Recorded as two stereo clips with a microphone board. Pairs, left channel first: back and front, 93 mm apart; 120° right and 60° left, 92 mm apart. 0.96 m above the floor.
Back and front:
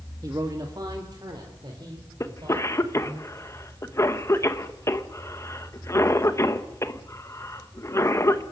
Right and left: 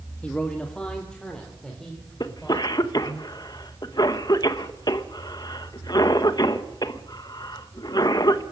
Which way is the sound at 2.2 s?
135° right.